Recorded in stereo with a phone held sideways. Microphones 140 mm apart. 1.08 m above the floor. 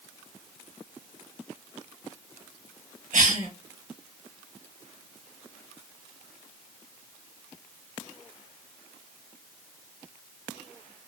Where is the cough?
65° right (ahead or behind), 1.4 m.